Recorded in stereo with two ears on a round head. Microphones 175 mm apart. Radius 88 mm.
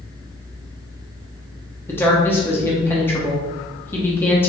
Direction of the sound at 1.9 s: 10° left (ahead or behind).